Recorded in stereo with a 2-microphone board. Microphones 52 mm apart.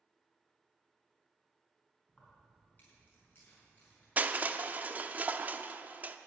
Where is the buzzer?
I don't hear a buzzer.